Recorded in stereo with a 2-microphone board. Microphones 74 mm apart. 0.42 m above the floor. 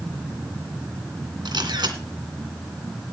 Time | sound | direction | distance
1.4 | a camera shutter | 75° right (ahead or behind) | 2.5 m